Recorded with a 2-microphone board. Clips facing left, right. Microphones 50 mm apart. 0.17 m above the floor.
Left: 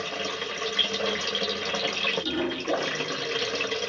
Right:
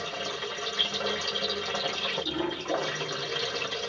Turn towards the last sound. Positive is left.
turn(degrees=75)  # may be behind; listen again after turning